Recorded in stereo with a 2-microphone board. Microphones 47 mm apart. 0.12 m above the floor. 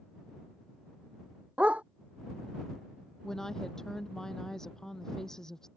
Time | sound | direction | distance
1.6 | a dog barking | 25° right (ahead or behind) | ?
3.2 | a woman speaking | 10° left (ahead or behind) | ?